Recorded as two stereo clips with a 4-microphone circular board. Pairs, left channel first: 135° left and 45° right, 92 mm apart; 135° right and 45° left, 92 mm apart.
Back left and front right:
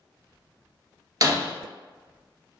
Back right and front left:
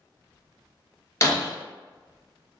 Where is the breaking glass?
85° right, 1.3 m.